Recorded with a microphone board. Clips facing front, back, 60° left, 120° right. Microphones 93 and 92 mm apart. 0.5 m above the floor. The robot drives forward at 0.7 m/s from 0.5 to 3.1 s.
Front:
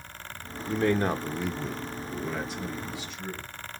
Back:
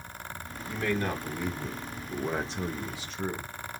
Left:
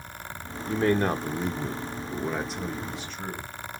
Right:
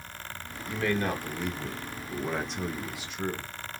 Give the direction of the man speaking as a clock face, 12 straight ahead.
11 o'clock.